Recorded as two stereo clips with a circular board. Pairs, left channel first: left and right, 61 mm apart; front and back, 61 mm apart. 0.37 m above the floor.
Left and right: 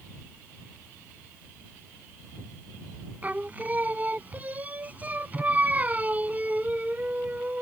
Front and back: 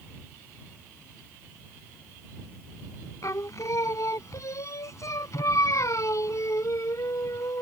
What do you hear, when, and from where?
3.2 s singing: 30° right